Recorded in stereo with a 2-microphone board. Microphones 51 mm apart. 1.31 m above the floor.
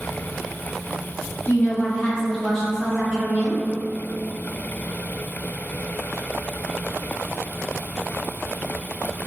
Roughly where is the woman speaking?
Left.